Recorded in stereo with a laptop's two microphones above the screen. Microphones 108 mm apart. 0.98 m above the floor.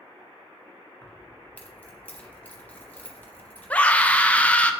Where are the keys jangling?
15° left (ahead or behind), 0.9 m.